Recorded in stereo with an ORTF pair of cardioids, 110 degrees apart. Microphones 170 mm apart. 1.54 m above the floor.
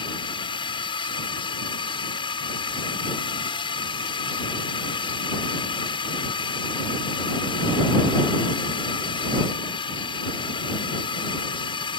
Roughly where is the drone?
Ahead left.